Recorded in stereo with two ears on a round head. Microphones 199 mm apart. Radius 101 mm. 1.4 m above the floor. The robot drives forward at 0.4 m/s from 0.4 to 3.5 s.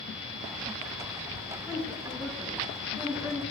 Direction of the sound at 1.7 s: 5° right (ahead or behind).